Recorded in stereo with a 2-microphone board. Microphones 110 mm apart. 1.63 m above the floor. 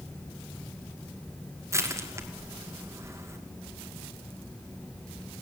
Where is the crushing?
25° right (ahead or behind), 2.5 m.